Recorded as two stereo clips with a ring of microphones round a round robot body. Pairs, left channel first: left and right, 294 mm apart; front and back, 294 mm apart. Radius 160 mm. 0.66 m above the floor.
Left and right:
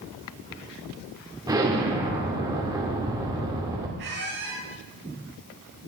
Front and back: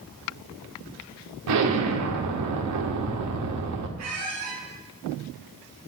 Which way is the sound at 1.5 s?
165° right.